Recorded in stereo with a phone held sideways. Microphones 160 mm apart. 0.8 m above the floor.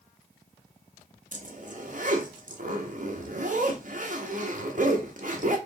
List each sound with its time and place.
1.3 s a zipper: 55° right (ahead or behind), 0.9 m